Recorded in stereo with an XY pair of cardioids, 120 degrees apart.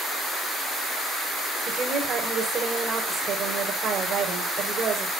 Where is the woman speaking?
45° right, 4.5 m.